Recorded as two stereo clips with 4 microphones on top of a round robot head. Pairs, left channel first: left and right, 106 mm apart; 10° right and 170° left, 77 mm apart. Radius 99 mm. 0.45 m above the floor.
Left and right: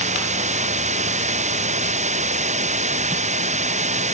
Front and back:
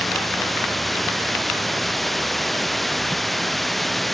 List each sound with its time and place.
0.0 s running water: 95° right